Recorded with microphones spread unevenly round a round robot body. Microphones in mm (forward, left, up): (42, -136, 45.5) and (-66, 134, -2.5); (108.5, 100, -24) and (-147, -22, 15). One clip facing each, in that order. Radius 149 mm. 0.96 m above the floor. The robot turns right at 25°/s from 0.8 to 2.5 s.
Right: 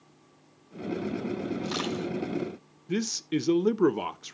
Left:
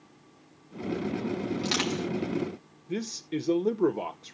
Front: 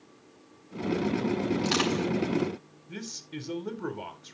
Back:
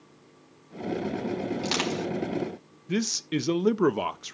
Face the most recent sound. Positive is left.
turn(degrees=-135)